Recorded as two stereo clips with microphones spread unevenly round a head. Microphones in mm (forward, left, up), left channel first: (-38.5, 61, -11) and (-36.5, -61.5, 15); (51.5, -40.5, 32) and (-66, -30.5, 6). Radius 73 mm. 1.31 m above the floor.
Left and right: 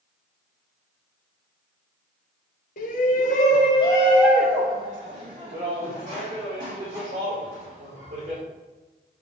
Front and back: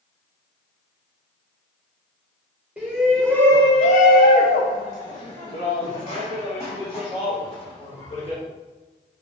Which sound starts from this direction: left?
A shout, at 2.8 s.